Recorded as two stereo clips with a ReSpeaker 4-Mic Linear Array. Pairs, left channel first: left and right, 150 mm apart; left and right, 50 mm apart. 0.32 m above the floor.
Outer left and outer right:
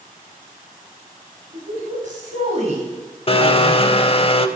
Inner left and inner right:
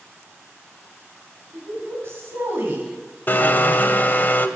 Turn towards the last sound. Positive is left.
turn(degrees=40)  # may be behind; listen again after turning